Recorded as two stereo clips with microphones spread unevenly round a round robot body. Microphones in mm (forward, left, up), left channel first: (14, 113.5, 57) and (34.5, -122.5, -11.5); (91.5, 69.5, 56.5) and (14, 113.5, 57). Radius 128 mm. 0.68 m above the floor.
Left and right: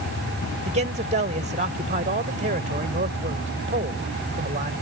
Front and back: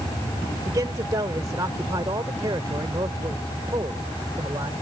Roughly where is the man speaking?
Behind right.